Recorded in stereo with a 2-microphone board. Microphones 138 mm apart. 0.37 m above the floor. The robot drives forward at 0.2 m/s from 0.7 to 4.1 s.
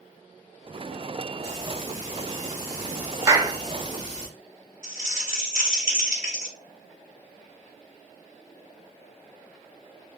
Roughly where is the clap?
Right.